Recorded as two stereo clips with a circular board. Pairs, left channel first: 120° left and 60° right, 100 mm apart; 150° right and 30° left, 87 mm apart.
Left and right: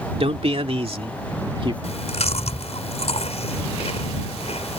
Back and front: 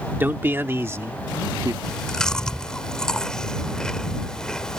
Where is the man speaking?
40° right; by 1.7 s 20° right.